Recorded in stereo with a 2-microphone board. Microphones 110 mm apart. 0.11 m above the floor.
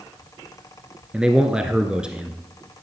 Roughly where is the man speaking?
Centre.